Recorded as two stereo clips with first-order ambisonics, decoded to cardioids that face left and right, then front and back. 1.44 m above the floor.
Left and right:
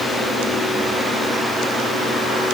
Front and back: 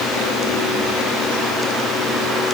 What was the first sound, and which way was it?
Only background noise.